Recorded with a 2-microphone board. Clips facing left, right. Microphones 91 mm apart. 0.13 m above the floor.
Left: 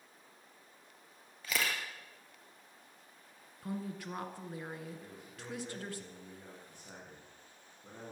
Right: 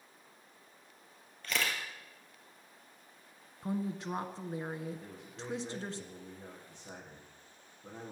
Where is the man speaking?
20° right (ahead or behind), 6.5 m.